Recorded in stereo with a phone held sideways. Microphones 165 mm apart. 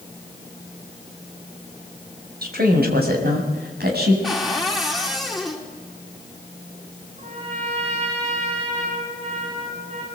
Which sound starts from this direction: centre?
A cupboard door, at 4.2 s.